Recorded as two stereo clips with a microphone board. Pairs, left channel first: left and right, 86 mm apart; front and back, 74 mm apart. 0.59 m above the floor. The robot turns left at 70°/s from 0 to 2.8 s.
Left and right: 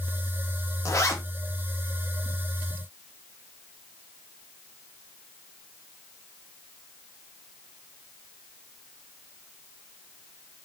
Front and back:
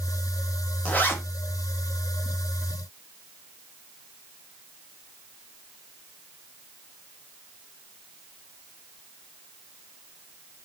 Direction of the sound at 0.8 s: 65° left.